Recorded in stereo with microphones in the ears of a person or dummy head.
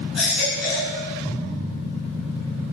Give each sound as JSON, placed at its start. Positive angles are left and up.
{"t": 0.1, "sound": "a baby crying", "side_deg": -10, "distance_m": 9.5}